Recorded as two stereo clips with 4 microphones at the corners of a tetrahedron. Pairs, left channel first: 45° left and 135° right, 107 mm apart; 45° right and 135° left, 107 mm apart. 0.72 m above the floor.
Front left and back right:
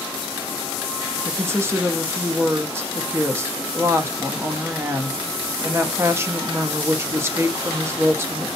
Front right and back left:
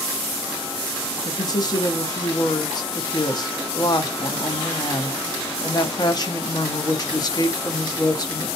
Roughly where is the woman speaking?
Right.